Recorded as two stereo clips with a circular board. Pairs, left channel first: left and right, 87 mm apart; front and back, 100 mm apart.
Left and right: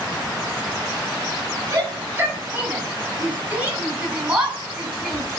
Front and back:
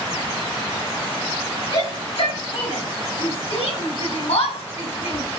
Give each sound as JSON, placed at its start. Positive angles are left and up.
{"t": 1.7, "sound": "a shout", "azimuth_deg": -25, "distance_m": 9.0}